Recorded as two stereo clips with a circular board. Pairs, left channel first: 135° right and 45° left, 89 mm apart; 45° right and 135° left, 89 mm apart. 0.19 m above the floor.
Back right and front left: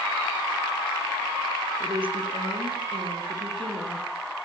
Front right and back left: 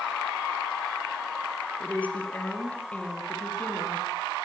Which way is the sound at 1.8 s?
30° left.